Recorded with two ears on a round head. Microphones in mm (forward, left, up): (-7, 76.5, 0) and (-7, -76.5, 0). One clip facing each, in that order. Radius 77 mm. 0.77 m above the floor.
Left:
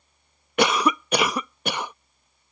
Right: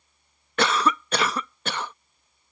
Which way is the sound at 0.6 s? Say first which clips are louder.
Left 2 dB; 10° left (ahead or behind).